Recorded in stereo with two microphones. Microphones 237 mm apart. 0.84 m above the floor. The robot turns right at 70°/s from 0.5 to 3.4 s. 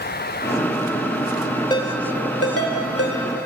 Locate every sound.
1.7 s a ringtone: 15° left (ahead or behind), 1.2 m; by 3.2 s 55° left (ahead or behind), 1.2 m